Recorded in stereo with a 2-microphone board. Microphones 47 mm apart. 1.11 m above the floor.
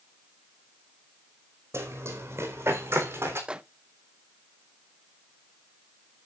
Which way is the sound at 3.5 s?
20° right (ahead or behind).